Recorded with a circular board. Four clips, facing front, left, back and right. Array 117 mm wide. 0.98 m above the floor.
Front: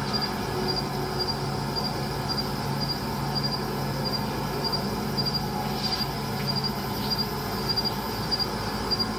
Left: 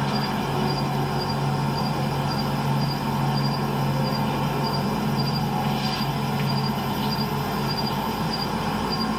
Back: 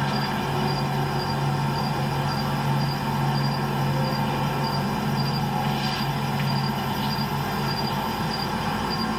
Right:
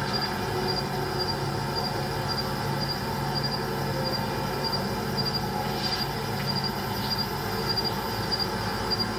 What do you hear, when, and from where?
0.0 s an insect: 140° left, 1.9 m